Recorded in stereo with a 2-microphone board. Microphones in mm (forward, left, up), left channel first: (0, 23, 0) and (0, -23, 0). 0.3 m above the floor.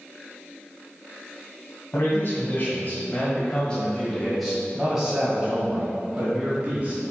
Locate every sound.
1.9 s a man speaking: 55° left (ahead or behind), 1.7 m; by 7.0 s 30° right (ahead or behind), 2.5 m